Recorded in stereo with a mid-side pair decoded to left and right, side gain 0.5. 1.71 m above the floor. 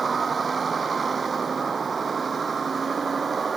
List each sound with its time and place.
0.0 s a vehicle: 35° right